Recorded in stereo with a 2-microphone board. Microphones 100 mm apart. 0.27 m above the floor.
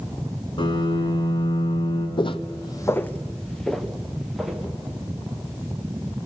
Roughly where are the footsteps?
Left.